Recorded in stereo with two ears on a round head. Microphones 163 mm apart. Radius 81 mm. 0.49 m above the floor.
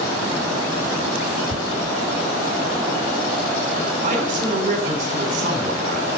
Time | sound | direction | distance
1.5 | tearing paper | 55° right (ahead or behind) | 0.7 m
4.0 | a man speaking | 45° right (ahead or behind) | 2 m